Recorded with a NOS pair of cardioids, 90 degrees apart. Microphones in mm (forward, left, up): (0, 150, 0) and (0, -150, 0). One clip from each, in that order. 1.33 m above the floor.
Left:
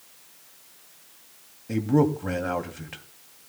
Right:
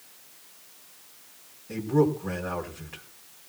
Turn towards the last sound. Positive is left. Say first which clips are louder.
# left 1 dB
turn(degrees=60)